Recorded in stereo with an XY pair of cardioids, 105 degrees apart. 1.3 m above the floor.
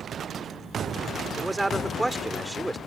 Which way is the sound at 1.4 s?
10° right.